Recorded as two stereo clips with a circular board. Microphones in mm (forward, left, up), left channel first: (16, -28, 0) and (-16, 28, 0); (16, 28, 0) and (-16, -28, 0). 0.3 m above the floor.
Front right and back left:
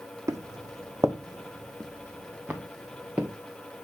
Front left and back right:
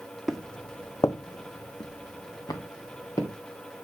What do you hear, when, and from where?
0.3 s footsteps: 150° left, 0.9 m; by 3.3 s 50° left, 2.5 m